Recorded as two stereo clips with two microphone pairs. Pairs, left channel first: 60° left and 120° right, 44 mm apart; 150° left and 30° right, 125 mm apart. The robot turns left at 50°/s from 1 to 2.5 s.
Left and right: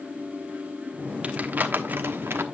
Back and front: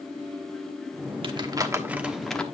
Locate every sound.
1.2 s crumpling: 65° right, 1.1 m; by 2.5 s 125° right, 1.1 m